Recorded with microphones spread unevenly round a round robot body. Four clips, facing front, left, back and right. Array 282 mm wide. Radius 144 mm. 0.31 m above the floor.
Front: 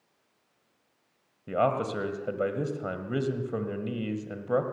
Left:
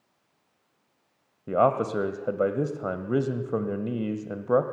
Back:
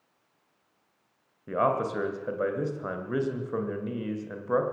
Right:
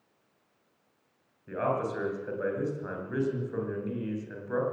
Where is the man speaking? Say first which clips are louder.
Left 7 dB, even; 90° left, 2 m.